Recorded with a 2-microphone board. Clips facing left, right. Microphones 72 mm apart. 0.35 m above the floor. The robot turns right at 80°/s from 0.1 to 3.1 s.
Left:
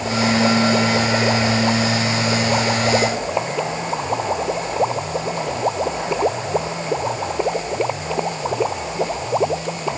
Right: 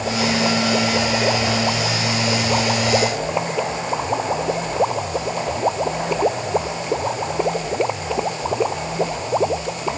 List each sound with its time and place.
Only background noise.